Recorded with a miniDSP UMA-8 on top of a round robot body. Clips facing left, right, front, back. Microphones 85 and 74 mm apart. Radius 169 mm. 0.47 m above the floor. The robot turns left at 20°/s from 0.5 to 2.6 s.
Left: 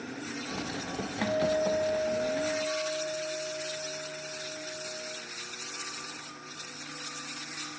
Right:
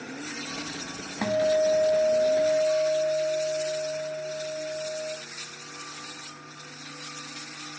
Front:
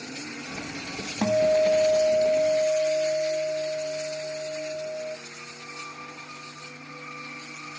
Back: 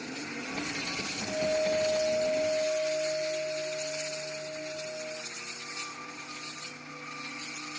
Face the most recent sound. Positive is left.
turn(degrees=-40)